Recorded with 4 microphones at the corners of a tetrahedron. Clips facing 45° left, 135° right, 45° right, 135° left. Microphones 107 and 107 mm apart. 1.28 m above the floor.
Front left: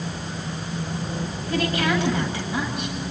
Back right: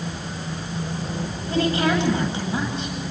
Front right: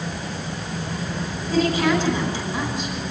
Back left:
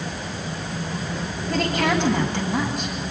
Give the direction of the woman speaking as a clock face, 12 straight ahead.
7 o'clock.